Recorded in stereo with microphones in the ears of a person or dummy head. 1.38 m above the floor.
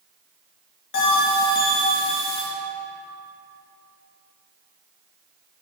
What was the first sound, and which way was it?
A bell, 60° left (ahead or behind).